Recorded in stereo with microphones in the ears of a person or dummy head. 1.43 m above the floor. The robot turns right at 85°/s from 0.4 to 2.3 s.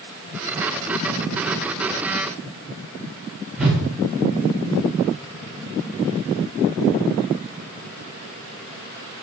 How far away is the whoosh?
About 1.9 m.